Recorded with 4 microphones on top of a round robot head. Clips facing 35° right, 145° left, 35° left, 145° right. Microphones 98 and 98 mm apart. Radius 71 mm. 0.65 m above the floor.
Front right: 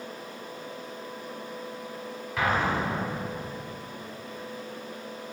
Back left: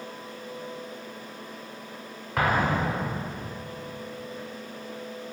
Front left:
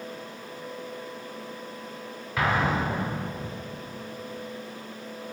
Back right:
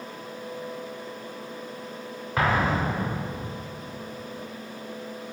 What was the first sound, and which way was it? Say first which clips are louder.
An explosion: back left 2 dB, back right 1 dB; 170° left.